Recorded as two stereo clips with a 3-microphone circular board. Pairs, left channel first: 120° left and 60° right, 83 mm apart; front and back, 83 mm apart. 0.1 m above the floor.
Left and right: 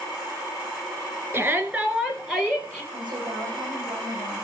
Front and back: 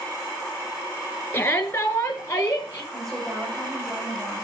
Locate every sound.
1.3 s a shout: 30° right, 1.6 m; by 2.8 s 50° left, 2.0 m
2.9 s a woman speaking: 90° right, 6.5 m